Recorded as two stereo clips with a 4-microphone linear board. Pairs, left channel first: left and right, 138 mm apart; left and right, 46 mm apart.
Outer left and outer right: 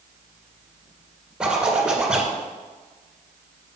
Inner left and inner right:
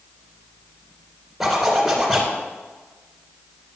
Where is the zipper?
5° right (ahead or behind), 1.9 m.